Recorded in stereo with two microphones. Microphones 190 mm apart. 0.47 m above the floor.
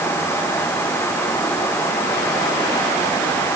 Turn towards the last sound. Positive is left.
No sound to turn to.